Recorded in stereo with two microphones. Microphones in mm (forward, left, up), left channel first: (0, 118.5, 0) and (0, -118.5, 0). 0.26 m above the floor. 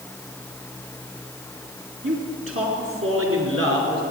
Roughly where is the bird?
I don't hear a bird.